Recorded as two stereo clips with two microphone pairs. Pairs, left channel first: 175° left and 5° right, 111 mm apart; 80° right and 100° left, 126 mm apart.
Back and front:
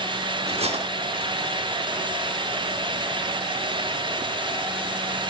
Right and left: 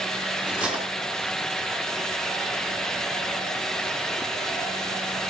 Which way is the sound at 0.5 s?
20° left.